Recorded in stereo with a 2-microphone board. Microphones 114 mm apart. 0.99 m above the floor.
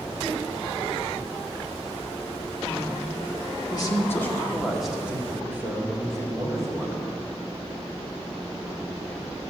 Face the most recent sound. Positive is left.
turn(degrees=-30)  # may be behind; listen again after turning